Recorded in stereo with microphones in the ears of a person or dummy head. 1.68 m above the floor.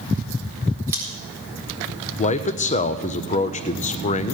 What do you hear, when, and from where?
0.9 s scissors: 15° right (ahead or behind), 4.5 m
2.2 s a man speaking: 35° left (ahead or behind), 0.7 m